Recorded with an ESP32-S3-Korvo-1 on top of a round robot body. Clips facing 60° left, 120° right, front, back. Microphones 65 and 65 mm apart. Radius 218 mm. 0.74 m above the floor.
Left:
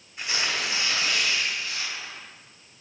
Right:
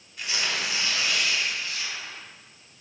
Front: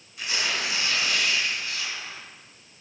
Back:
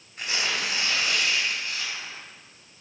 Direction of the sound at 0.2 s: 125° left.